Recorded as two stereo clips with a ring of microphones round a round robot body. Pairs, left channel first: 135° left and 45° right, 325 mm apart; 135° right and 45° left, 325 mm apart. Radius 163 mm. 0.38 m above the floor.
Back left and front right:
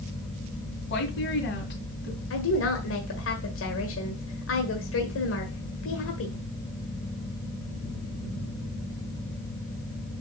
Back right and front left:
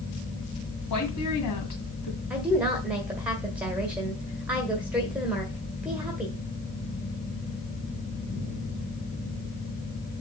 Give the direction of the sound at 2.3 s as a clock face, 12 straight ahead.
8 o'clock.